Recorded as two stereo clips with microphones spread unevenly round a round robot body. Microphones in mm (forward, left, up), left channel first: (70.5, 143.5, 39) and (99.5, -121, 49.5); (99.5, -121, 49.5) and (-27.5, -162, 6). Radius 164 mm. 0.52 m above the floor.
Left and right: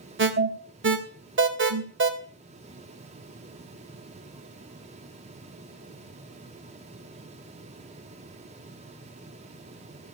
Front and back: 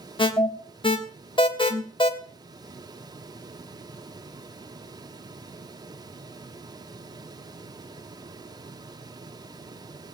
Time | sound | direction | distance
0.2 | an alarm | 40° right | 2.5 m